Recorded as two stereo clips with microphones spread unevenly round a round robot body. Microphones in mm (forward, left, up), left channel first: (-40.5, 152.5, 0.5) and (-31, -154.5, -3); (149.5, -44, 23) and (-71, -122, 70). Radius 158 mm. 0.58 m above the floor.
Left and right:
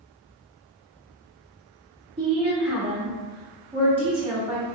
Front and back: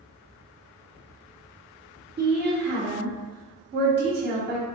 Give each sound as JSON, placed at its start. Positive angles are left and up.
{"t": 2.2, "sound": "a woman speaking", "azimuth_deg": -145, "distance_m": 0.9}